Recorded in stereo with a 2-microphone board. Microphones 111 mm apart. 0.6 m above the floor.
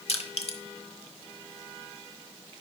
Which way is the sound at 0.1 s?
65° left (ahead or behind).